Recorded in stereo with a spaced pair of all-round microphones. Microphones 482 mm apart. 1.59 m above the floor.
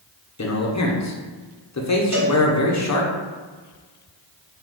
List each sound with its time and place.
0.4 s a man speaking: 35° left (ahead or behind), 0.5 m
2.1 s a cowbell: 35° right (ahead or behind), 1.4 m